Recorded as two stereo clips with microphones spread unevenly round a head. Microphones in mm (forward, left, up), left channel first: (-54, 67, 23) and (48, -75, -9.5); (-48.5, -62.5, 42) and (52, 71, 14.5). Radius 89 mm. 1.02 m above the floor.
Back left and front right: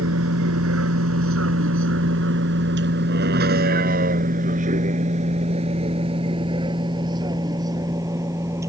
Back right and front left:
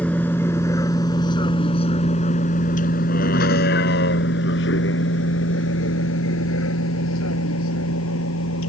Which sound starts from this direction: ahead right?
A vehicle, at 0.0 s.